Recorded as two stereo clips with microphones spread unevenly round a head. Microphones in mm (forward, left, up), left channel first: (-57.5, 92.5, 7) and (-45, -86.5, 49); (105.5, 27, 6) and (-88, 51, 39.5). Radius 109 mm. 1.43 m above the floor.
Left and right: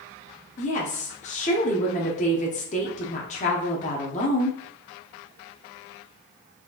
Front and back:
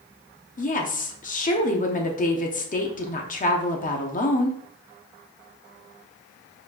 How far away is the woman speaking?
About 1.0 m.